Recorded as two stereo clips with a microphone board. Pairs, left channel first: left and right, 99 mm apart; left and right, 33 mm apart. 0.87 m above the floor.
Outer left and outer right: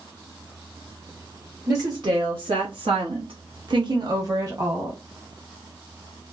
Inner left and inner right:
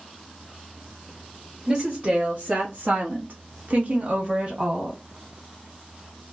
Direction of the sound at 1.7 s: 45° right (ahead or behind).